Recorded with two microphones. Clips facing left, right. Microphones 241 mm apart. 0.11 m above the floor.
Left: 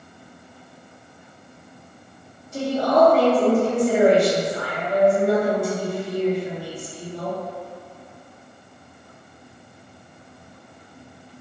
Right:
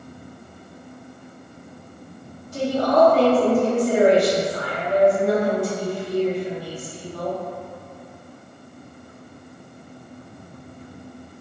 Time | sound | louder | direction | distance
2.5 | a woman speaking | right 1 dB | 25° left (ahead or behind) | 1.9 m